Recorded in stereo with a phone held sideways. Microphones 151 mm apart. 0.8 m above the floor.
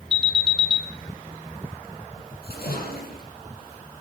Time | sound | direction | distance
0.1 | an alarm | 40° left (ahead or behind) | 1.5 m
2.4 | a splash | 85° left | 6 m